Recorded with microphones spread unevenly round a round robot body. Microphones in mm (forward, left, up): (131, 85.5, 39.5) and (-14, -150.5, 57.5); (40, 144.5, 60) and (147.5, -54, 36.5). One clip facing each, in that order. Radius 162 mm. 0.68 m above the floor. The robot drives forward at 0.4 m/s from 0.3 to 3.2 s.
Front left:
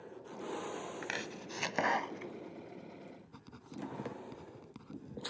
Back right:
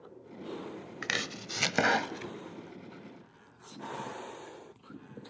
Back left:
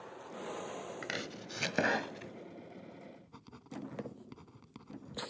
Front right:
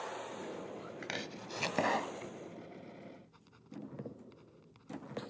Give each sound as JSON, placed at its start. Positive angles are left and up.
{"t": 1.0, "sound": "chopping", "azimuth_deg": -160}
{"t": 3.3, "sound": "writing", "azimuth_deg": 95}